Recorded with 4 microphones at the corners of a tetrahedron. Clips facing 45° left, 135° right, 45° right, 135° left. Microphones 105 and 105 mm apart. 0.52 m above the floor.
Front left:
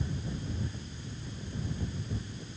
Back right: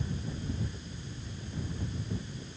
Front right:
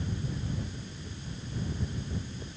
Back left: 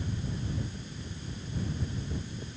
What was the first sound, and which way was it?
Only background noise.